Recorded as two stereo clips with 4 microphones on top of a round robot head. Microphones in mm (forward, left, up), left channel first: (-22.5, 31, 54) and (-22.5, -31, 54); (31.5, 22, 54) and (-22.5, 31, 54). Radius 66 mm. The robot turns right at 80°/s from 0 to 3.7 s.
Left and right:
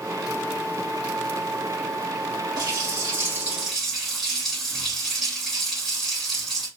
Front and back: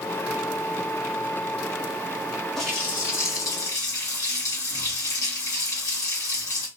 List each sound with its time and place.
2.6 s a running tap: 90° right, 1.5 m; by 6.7 s straight ahead, 1.5 m